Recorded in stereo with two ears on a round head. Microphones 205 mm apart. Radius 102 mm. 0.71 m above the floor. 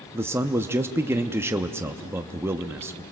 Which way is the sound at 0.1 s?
10° right (ahead or behind).